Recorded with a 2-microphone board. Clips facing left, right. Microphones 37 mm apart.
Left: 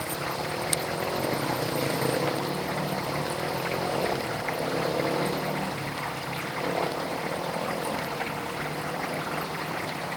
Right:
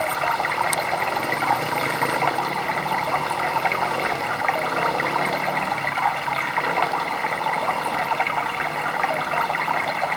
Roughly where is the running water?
Right.